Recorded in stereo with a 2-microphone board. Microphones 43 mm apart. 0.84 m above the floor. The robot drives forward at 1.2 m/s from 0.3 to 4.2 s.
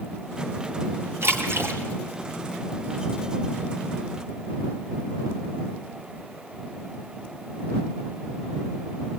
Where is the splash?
65° right (ahead or behind), 4 m; by 1.8 s 60° right (ahead or behind), 4.5 m.